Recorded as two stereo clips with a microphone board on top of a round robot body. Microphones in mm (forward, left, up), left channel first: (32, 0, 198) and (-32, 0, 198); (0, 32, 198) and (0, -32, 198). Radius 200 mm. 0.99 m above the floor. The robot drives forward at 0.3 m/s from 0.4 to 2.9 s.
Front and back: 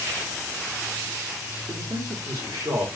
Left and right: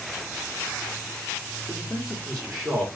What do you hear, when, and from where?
1.7 s a man speaking: 170° left, 1.8 m; by 2.9 s 175° left, 2 m